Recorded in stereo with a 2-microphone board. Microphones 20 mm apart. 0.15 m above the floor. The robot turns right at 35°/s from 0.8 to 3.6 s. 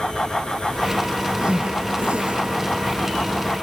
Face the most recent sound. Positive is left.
turn(degrees=-40)  # may be behind; listen again after turning